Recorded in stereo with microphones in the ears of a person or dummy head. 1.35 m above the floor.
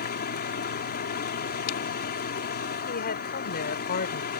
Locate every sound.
0.0 s a machine running: 55° left (ahead or behind)
2.9 s a woman speaking: 55° left (ahead or behind)